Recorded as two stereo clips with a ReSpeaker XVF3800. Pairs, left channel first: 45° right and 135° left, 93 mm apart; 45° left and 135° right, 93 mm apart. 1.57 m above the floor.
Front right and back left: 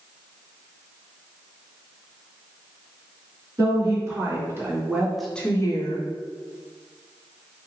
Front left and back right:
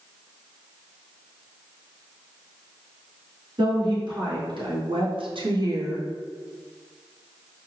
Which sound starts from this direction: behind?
A woman speaking, at 3.6 s.